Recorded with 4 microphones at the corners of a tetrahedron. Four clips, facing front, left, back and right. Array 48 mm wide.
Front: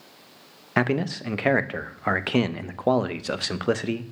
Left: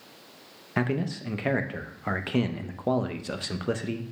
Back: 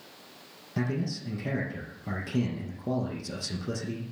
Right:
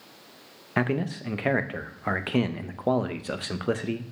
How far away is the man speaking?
About 0.5 m.